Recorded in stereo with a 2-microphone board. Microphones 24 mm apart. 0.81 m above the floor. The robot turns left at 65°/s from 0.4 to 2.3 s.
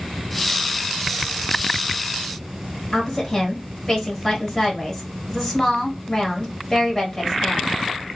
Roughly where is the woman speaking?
Centre.